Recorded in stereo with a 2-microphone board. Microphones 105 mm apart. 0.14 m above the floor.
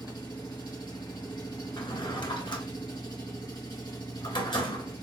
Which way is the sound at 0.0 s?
40° left (ahead or behind).